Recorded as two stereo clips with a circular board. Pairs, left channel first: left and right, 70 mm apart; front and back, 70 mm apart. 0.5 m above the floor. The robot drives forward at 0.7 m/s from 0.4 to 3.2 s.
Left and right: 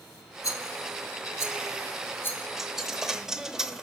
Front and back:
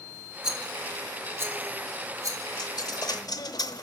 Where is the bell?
I don't hear a bell.